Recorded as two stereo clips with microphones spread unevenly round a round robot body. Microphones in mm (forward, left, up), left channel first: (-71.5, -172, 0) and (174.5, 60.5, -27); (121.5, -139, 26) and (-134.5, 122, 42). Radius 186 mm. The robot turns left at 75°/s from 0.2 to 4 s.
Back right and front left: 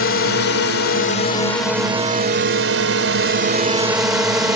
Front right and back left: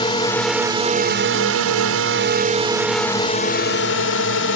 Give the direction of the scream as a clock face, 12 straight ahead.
No scream in this recording.